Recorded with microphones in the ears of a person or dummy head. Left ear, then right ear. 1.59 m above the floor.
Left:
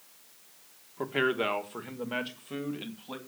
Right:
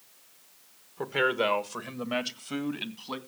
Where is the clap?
I don't hear a clap.